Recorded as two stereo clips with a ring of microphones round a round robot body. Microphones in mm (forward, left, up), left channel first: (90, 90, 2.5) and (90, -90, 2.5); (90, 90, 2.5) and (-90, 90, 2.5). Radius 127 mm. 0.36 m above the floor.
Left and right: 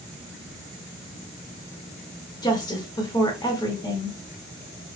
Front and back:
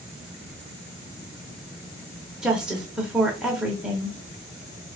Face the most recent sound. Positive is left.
turn(degrees=100)